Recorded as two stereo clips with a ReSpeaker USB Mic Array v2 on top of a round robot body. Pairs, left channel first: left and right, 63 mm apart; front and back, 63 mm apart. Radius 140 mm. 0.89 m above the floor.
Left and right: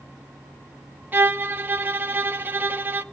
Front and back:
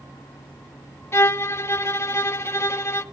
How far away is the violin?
About 1.0 m.